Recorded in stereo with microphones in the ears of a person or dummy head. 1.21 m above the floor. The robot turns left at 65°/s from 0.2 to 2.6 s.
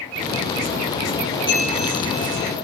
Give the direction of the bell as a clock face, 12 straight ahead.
5 o'clock.